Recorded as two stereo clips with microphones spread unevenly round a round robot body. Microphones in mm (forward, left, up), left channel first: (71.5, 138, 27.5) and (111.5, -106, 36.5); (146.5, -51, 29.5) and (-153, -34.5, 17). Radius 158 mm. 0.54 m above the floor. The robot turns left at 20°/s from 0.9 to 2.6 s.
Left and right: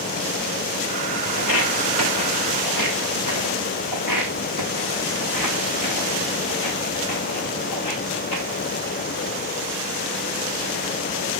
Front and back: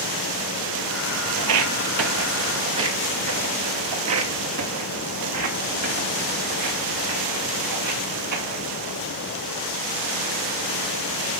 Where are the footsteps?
140° left, 0.9 m; by 8.7 s 135° left, 4.5 m.